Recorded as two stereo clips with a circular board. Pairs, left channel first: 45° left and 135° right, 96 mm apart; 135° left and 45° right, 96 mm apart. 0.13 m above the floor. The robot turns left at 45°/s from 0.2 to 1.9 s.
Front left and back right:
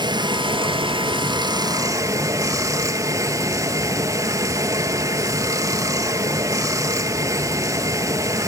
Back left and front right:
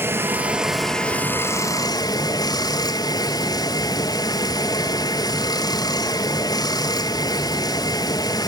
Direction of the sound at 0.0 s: 110° right.